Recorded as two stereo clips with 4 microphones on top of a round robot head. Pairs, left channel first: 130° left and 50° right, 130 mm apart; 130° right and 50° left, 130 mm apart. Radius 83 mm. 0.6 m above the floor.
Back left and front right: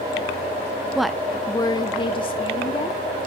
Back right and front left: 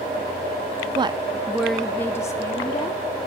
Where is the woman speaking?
35° left, 0.6 m; by 3.1 s 175° left, 1.2 m.